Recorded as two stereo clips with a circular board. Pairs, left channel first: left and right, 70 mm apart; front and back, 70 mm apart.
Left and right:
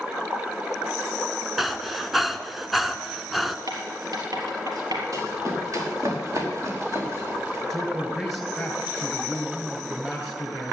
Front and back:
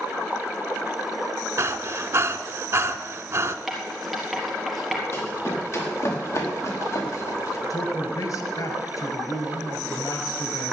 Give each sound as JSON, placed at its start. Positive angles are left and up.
{"t": 1.6, "sound": "breathing", "azimuth_deg": -175, "distance_m": 0.8}
{"t": 3.7, "sound": "writing", "azimuth_deg": -90, "distance_m": 4.0}
{"t": 5.1, "sound": "running footsteps", "azimuth_deg": -50, "distance_m": 5.5}
{"t": 7.7, "sound": "a man speaking", "azimuth_deg": 5, "distance_m": 2.5}